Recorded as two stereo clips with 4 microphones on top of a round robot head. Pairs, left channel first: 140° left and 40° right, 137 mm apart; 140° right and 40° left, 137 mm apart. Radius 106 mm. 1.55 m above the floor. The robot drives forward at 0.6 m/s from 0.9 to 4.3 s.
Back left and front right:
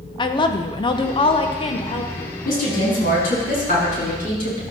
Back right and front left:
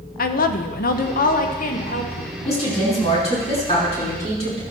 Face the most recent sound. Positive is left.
turn(degrees=170)